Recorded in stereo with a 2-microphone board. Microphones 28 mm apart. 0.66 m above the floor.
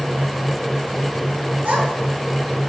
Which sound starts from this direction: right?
A child speaking, at 1.6 s.